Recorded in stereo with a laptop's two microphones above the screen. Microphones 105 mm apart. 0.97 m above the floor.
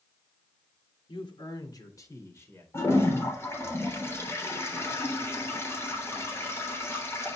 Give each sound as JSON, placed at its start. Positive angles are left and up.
{"t": 1.1, "sound": "a man speaking", "side_deg": 55, "distance_m": 2.5}
{"t": 2.7, "sound": "a toilet flushing", "side_deg": 25, "distance_m": 3.5}